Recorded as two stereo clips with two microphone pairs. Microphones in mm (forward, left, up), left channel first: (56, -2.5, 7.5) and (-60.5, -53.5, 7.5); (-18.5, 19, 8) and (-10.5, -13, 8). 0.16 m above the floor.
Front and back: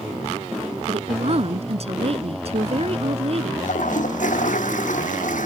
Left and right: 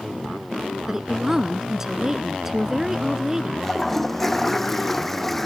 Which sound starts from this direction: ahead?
A toilet flushing, at 3.6 s.